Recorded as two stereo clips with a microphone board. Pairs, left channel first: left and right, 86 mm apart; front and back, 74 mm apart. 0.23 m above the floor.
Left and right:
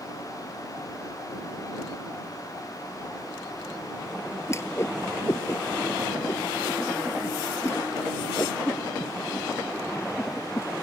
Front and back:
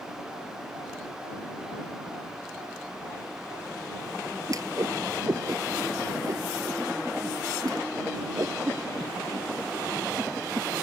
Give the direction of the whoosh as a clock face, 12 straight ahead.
7 o'clock.